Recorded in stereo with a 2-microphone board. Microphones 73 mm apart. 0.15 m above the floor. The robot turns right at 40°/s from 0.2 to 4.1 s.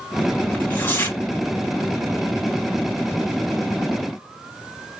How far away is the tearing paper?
About 1.3 m.